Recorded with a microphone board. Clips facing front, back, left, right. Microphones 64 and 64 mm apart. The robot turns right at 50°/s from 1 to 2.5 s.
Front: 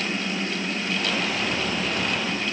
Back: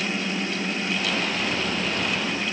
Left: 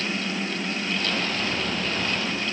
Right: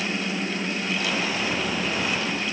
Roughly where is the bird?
I don't hear a bird.